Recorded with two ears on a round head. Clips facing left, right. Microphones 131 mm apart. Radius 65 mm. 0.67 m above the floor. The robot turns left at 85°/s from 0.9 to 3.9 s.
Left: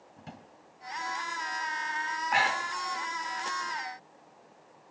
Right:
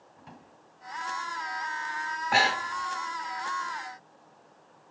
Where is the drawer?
55° left (ahead or behind), 2 m.